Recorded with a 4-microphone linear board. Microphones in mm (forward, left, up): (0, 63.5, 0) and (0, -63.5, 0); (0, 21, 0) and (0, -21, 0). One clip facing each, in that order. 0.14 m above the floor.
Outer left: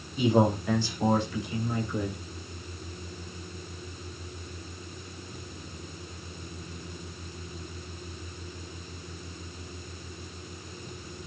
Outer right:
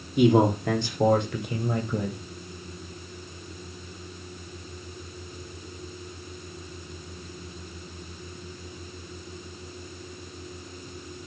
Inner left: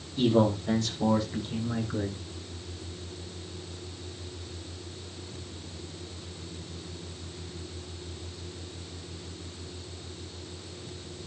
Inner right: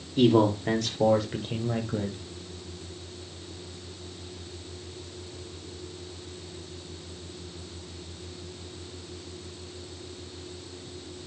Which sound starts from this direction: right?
A man speaking, at 0.2 s.